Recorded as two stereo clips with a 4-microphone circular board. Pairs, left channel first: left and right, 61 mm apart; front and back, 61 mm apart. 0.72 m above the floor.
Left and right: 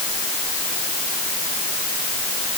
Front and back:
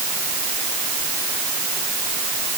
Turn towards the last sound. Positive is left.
No sound to turn to.